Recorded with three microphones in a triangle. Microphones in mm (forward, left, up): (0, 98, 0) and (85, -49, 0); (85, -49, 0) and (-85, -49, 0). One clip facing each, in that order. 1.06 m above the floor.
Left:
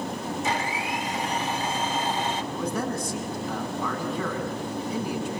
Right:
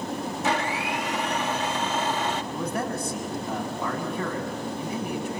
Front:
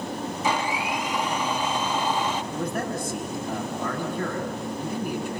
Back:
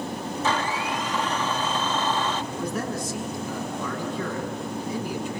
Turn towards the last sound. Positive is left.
turn(degrees=-35)